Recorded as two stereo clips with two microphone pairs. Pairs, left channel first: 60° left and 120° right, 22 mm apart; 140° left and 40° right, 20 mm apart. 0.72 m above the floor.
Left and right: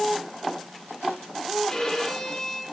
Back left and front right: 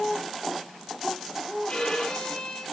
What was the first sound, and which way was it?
A violin, 120° left.